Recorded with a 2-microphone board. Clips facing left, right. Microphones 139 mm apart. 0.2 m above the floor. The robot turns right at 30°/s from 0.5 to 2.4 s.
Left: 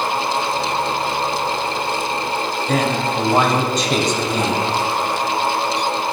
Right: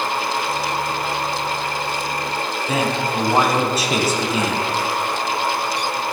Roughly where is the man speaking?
Centre.